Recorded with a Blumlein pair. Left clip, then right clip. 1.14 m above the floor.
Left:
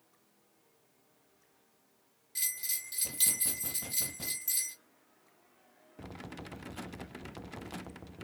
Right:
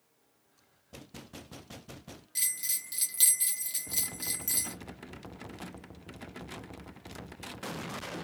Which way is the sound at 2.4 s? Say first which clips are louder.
Right 3 dB; 20° right.